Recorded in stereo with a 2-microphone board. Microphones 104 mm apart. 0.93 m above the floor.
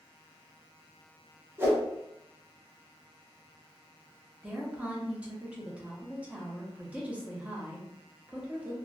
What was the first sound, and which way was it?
A whoosh, 25° right (ahead or behind).